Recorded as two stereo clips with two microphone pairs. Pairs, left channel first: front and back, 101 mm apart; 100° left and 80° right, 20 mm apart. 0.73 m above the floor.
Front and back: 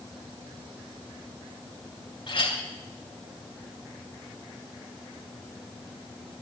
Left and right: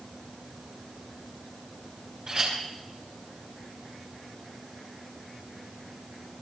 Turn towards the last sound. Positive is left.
turn(degrees=-30)